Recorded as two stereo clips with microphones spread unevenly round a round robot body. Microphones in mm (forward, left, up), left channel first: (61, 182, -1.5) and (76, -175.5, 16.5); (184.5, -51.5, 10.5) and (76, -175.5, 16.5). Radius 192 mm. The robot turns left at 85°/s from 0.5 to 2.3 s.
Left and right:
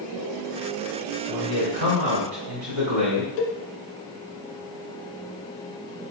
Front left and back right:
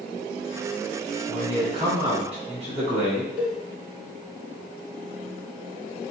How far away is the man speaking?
About 2 m.